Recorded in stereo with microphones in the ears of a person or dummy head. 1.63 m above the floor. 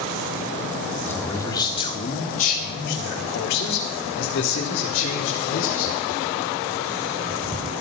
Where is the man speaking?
10° left (ahead or behind), 1.9 m; by 6.0 s 85° left, 4 m.